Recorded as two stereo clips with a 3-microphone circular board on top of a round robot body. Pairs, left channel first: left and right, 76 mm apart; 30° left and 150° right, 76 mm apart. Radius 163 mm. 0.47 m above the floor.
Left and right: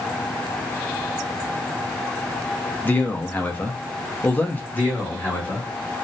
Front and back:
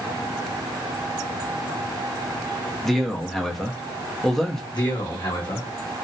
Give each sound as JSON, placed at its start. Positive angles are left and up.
{"t": 2.8, "sound": "a man speaking", "azimuth_deg": 110, "distance_m": 0.8}
{"t": 4.7, "sound": "a man speaking", "azimuth_deg": 25, "distance_m": 1.3}